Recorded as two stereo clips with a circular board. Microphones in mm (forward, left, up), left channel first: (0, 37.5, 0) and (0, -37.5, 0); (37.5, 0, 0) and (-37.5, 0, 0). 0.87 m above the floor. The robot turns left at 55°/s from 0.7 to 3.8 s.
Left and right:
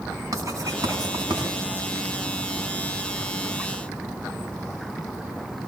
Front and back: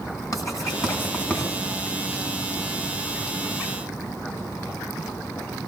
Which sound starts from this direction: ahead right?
Writing, at 0.3 s.